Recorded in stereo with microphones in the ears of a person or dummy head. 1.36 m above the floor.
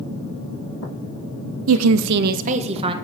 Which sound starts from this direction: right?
A woman speaking, at 1.7 s.